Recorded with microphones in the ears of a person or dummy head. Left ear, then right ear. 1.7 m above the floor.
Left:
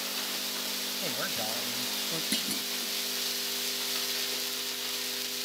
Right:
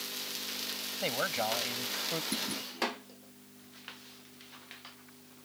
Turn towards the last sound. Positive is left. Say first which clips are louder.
# left 4 dB
turn(degrees=20)  # may be behind; listen again after turning